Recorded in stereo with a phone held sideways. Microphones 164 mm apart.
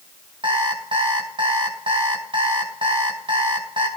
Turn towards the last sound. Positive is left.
turn(degrees=-30)  # may be behind; listen again after turning